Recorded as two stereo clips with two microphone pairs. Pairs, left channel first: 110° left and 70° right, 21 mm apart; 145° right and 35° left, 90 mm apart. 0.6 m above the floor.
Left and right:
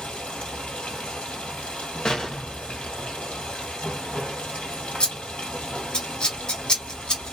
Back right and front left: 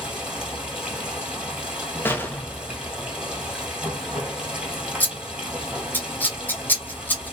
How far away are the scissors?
About 1.1 m.